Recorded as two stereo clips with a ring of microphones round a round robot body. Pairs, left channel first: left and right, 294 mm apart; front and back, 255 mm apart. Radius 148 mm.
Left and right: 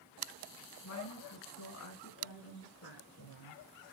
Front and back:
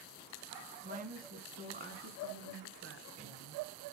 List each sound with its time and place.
0.8 s a woman speaking: 125° left, 3 m; by 3.6 s 140° left, 4 m